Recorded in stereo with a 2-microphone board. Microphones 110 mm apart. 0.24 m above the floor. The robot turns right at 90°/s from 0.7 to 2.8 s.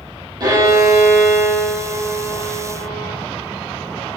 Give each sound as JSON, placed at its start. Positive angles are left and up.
{"t": 0.4, "sound": "a violin", "azimuth_deg": -145, "distance_m": 5.5}